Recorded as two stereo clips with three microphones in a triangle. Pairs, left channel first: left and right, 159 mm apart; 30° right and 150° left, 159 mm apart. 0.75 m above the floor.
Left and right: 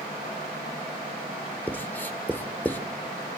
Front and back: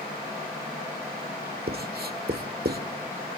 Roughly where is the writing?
Behind.